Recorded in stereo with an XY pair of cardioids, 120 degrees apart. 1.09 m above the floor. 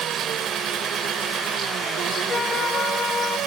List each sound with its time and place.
0.0 s an engine running: 60° right
2.3 s a flute: 35° left